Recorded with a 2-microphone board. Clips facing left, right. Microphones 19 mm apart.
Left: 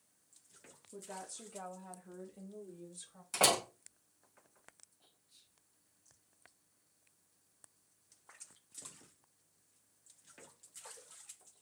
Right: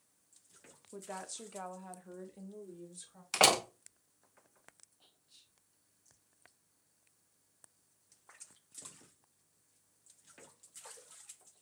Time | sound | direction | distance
0.9 | a woman speaking | 50° right (ahead or behind) | 0.9 m
3.3 | a door slam | 40° right (ahead or behind) | 1.0 m
5.0 | whispering | 30° right (ahead or behind) | 0.6 m